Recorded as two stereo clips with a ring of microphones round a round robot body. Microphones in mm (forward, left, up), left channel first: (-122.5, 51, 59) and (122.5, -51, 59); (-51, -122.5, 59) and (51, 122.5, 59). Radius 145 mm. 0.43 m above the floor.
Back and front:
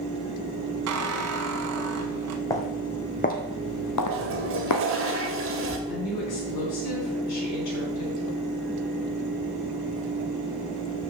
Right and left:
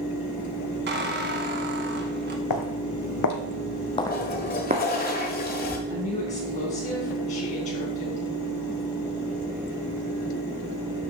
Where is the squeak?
15° left, 0.9 m.